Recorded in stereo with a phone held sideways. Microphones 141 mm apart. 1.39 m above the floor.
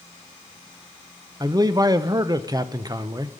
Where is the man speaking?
30° right (ahead or behind), 0.5 m.